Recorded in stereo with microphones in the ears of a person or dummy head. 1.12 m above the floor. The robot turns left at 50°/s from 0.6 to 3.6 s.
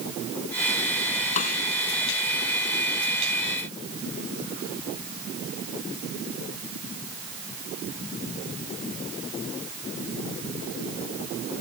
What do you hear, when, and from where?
1.4 s a snare drum: 45° left (ahead or behind); by 1.6 s 60° left (ahead or behind)